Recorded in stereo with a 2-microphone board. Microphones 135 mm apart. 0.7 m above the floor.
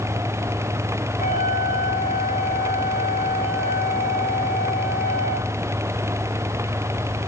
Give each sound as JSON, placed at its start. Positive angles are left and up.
{"t": 1.2, "sound": "a flute", "side_deg": 75, "distance_m": 4.5}